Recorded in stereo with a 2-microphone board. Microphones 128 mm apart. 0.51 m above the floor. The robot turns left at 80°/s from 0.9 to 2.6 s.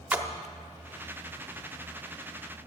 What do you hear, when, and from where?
0.1 s a splash: 10° right (ahead or behind), 0.8 m